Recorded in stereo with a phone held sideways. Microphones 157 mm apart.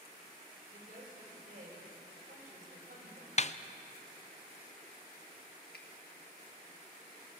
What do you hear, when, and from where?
0.7 s a woman speaking: 60° right (ahead or behind), 7.5 m
3.4 s a snare drum: 45° left (ahead or behind), 0.5 m
5.7 s a finger snap: 80° left, 1.7 m